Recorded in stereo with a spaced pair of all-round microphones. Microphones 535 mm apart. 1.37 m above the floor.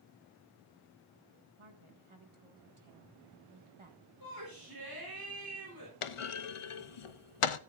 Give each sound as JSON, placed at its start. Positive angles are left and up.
{"t": 1.6, "sound": "a woman speaking", "side_deg": -65, "distance_m": 1.8}
{"t": 4.2, "sound": "a shout", "side_deg": -40, "distance_m": 3.5}
{"t": 6.0, "sound": "a clunk", "side_deg": 70, "distance_m": 0.6}